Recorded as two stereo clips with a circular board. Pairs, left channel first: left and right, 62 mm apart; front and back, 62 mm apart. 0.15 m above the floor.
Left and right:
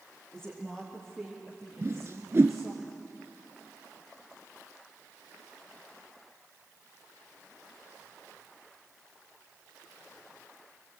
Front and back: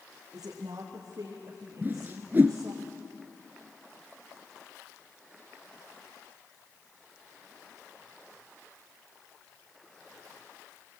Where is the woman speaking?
175° left, 5 m; by 2.8 s 170° right, 3.5 m.